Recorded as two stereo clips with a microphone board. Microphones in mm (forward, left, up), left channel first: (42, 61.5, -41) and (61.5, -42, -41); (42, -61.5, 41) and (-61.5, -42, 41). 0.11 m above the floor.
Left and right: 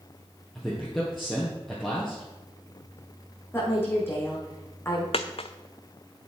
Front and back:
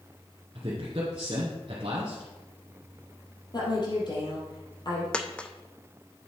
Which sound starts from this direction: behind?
A man speaking, at 0.6 s.